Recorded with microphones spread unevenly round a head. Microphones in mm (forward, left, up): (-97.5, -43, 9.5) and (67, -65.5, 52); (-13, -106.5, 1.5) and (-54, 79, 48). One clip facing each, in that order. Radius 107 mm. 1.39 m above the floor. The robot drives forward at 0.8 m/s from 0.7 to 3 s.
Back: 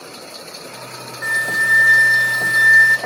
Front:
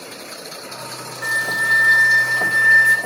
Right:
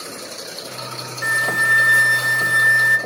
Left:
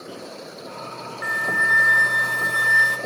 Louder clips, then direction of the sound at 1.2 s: Back 1 dB, right 3 dB; 110° right.